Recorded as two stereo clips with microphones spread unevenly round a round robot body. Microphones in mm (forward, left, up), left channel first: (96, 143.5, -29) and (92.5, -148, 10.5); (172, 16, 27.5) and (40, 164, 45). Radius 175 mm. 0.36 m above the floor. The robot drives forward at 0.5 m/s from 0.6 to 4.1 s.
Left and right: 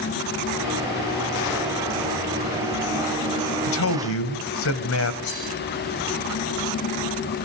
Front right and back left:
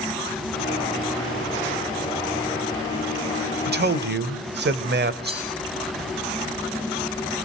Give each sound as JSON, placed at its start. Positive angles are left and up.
{"t": 3.7, "sound": "a man speaking", "azimuth_deg": 105, "distance_m": 1.8}
{"t": 5.2, "sound": "cutlery clinking", "azimuth_deg": 95, "distance_m": 10.0}